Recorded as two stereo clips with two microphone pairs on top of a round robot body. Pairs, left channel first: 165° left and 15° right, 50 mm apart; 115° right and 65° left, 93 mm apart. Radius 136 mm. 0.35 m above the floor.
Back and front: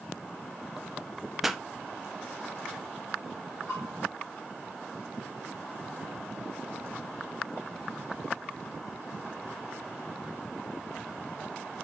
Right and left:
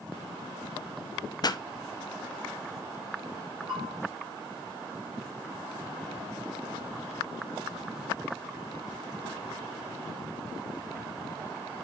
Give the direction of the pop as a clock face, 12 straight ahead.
3 o'clock.